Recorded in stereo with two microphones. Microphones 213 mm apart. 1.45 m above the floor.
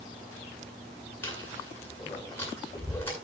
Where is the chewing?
10° left (ahead or behind), 9 m.